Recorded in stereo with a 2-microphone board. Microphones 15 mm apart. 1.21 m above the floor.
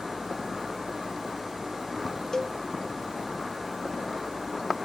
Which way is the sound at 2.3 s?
40° left (ahead or behind).